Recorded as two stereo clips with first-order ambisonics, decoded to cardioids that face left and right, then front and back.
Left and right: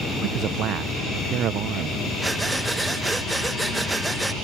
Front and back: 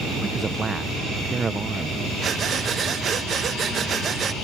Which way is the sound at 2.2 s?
170° right.